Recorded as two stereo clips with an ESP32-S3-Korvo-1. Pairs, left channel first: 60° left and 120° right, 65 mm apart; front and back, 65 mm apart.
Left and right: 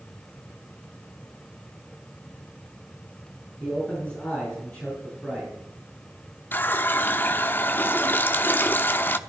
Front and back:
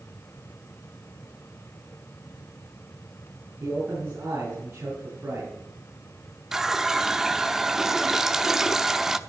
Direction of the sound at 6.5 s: 100° left.